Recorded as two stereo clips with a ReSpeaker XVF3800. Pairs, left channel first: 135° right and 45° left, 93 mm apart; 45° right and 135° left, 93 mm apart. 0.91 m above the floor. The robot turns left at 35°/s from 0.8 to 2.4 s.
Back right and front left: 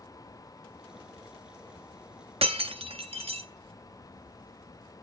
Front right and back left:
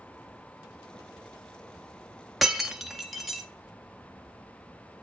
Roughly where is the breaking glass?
Ahead left.